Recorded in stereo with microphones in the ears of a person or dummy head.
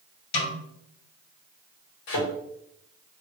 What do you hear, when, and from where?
0.3 s a snare drum: 55° left (ahead or behind), 1.7 m
2.1 s a thud: 60° left (ahead or behind), 1.4 m